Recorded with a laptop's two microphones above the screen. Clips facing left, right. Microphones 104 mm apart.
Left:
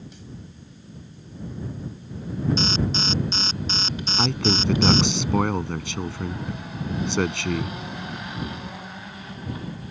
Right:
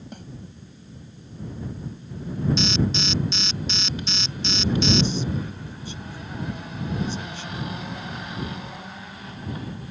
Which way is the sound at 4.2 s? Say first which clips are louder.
Left 10 dB; 80° left.